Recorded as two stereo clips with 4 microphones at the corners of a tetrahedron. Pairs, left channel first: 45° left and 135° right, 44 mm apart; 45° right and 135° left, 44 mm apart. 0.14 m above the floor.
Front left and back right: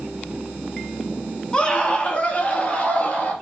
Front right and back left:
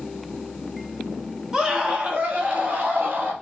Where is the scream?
75° left, 1.7 m; by 3.3 s 90° left, 3.5 m.